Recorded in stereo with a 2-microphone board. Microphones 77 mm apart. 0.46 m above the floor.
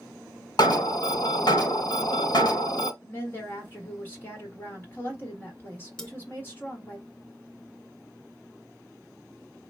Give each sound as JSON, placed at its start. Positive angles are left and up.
{"t": 0.6, "sound": "an alarm", "side_deg": 65, "distance_m": 1.4}
{"t": 3.0, "sound": "a woman speaking", "side_deg": 30, "distance_m": 1.6}
{"t": 6.0, "sound": "cutlery clinking", "side_deg": 10, "distance_m": 1.1}